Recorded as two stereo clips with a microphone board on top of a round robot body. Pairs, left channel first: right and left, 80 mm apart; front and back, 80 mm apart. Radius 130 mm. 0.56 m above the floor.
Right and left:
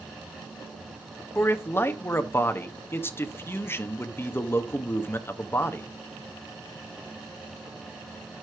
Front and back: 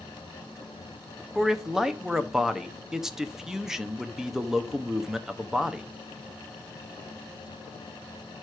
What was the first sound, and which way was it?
A man speaking, 100° right.